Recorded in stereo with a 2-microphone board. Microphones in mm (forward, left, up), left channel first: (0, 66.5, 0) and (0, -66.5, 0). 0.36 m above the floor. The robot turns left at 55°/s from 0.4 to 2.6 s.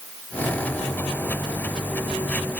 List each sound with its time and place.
Only background noise.